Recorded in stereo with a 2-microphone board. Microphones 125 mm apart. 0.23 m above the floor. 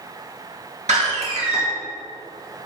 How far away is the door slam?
About 3.5 m.